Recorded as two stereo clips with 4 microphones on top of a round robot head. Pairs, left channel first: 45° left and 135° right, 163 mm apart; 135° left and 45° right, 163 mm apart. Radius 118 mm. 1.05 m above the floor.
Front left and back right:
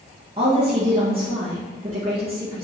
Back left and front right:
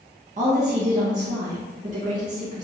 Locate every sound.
0.4 s a woman speaking: 85° right, 1.4 m